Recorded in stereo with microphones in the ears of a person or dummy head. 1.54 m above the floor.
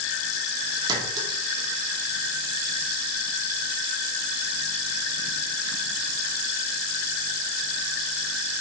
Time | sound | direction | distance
0.9 | a clink | 25° right (ahead or behind) | 1.9 m